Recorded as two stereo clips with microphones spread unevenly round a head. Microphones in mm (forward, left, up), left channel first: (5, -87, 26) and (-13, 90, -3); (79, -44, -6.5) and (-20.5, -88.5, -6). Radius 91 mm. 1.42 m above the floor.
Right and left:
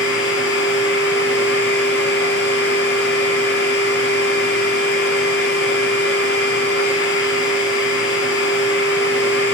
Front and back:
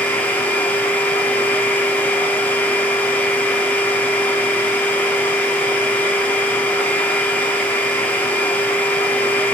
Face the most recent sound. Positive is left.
turn(degrees=-55)